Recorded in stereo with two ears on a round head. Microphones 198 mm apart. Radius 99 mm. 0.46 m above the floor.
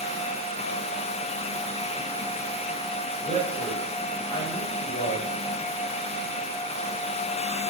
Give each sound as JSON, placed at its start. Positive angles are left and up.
{"t": 3.2, "sound": "a man speaking", "side_deg": 25, "distance_m": 2.5}